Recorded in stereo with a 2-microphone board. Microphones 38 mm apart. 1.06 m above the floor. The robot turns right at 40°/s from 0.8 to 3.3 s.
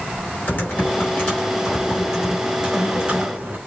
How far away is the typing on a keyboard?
About 3.5 m.